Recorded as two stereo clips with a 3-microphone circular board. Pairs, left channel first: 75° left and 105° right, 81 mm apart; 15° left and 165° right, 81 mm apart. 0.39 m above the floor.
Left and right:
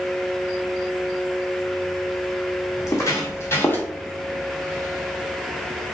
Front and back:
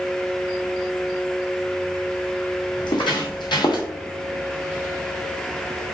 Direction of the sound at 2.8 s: 25° left.